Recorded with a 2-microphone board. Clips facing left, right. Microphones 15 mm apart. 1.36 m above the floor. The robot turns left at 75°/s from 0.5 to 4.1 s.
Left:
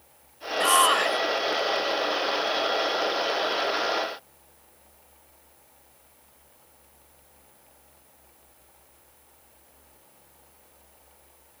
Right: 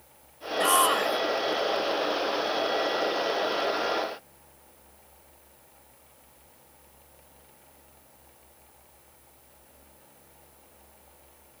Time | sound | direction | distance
0.6 | a shout | 165° left | ?